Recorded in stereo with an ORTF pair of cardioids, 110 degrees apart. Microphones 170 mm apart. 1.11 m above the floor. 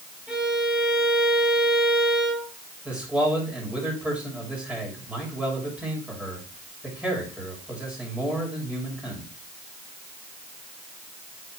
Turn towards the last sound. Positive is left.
turn(degrees=-5)